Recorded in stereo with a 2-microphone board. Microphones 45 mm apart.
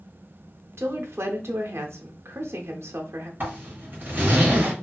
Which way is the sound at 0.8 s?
75° right (ahead or behind).